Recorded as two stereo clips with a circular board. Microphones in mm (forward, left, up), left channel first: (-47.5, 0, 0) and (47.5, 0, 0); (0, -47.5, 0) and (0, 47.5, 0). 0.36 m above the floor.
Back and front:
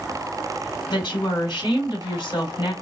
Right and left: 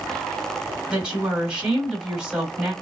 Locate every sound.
0.9 s a woman speaking: 170° left, 2.0 m